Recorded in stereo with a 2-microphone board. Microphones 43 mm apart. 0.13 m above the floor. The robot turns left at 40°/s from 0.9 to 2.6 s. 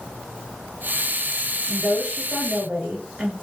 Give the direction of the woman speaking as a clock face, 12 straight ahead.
3 o'clock.